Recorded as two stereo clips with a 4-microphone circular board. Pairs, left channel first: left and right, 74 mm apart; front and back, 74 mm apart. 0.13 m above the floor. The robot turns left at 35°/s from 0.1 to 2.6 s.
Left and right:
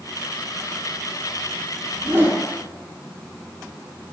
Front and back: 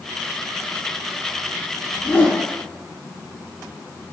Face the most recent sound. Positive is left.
turn(degrees=-75)